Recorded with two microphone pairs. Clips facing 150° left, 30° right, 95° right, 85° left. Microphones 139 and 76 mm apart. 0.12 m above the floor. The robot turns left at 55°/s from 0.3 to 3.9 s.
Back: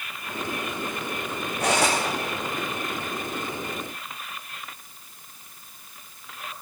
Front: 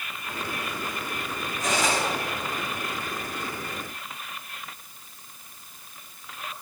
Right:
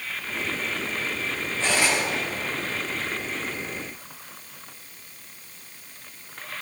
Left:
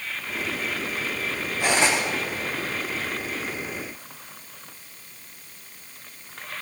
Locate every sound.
1.6 s cutlery clinking: 165° left, 4.5 m; by 2.0 s 145° left, 4.5 m